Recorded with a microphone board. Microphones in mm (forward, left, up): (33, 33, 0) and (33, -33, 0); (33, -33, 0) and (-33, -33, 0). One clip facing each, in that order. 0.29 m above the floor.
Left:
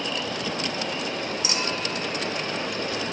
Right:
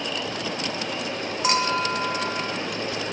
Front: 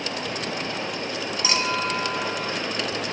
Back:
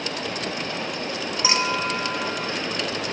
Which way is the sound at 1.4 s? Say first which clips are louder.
Right 6 dB, back 2 dB; 115° right.